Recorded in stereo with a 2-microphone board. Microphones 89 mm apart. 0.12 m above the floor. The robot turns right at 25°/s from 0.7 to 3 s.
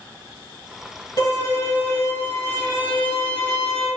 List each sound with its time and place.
1.2 s a violin: 100° left, 1.3 m; by 3.9 s 150° left, 1.3 m